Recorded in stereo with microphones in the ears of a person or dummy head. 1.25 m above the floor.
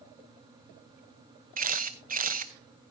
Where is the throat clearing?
I don't hear throat clearing.